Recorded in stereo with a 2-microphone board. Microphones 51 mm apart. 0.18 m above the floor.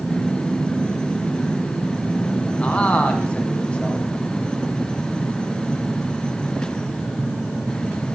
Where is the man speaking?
25° left (ahead or behind), 1.3 m.